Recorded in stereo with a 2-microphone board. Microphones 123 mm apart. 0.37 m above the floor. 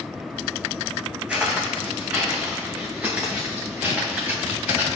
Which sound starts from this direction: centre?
Footsteps, at 1.3 s.